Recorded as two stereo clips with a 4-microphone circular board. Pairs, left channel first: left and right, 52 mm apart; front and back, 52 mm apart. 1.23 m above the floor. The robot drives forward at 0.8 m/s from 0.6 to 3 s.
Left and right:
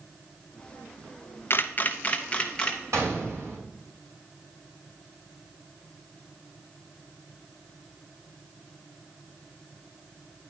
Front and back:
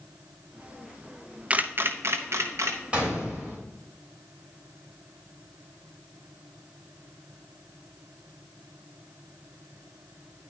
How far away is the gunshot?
About 3.5 m.